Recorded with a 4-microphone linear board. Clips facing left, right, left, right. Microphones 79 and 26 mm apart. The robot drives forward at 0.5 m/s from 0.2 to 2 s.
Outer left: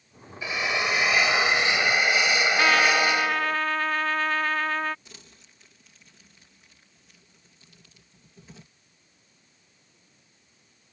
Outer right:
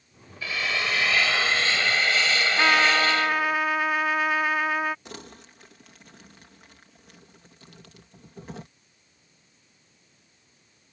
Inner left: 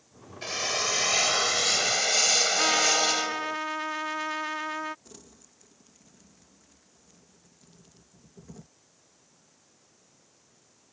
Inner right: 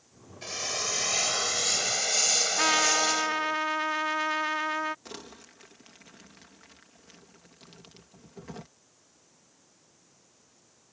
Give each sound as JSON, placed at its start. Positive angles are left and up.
{"t": 0.4, "sound": "a drill", "side_deg": 20}
{"t": 2.6, "sound": "a trumpet", "side_deg": -10}
{"t": 5.0, "sound": "crumpling", "side_deg": -65}